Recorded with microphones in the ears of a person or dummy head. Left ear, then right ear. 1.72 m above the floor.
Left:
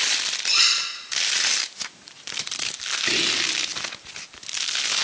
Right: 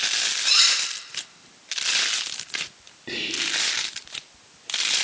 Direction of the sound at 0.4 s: 25° right (ahead or behind).